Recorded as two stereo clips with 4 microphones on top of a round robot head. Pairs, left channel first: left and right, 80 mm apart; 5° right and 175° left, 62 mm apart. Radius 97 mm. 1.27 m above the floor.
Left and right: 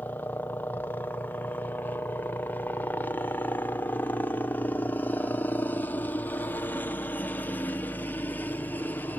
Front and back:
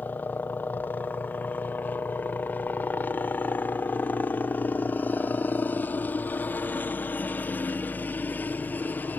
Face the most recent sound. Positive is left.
turn(degrees=35)